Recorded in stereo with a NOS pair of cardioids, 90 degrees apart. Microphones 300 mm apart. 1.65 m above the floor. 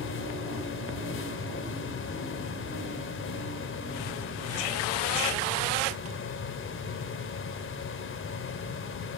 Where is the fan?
45° left, 1.2 m.